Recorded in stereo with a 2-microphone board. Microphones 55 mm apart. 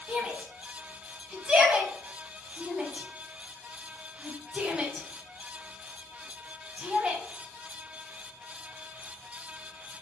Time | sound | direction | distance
0.1 | a shout | 15° right (ahead or behind) | 1.3 m